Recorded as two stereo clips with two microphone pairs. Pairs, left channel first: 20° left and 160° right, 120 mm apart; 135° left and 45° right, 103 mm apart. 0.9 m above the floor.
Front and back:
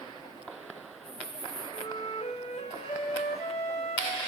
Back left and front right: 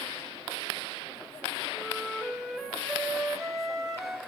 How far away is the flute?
About 1.7 m.